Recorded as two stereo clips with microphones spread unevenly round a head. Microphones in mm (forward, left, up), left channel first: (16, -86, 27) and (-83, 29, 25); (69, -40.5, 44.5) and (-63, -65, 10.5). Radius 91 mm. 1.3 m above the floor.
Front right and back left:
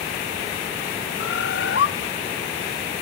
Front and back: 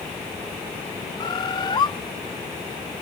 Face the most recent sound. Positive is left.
turn(degrees=-35)